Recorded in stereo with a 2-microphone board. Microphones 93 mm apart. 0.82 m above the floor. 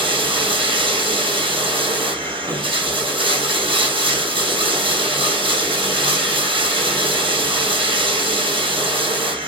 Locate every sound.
0.0 s running water: 70° right (ahead or behind), 1.9 m